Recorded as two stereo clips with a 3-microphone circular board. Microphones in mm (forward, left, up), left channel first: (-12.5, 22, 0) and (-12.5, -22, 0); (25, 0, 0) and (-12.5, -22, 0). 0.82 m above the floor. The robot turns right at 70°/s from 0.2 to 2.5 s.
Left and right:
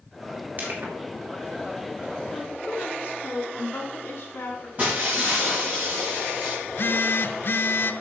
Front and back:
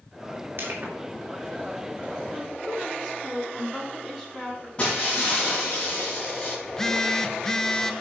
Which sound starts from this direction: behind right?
Crushing, at 0.6 s.